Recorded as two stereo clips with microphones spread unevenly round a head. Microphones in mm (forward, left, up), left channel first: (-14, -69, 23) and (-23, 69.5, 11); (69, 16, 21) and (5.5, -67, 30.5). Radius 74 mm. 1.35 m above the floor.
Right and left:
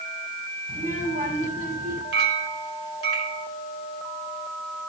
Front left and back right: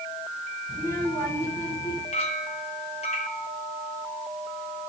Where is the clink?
100° left, 3 m.